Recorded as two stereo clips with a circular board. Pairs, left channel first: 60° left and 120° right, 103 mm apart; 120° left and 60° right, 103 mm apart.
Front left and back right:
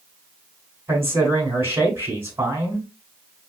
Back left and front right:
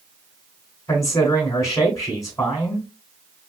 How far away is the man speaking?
About 1.9 m.